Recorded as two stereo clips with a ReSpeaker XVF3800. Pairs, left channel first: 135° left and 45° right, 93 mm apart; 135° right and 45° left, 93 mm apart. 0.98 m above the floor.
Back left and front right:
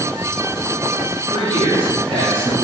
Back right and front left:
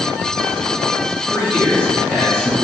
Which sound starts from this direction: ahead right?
A man speaking, at 1.3 s.